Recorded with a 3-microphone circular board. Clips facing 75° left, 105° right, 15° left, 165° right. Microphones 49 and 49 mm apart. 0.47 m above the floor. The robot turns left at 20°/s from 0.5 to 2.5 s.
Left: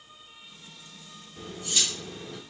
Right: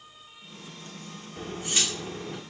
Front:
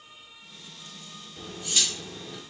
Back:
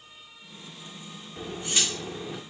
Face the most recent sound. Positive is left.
turn(degrees=-150)